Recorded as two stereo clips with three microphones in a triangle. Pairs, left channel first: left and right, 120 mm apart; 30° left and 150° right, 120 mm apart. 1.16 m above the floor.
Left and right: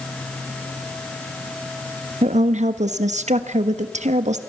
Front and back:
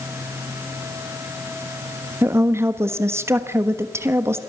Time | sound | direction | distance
2.2 | a woman speaking | 80° right | 1.3 m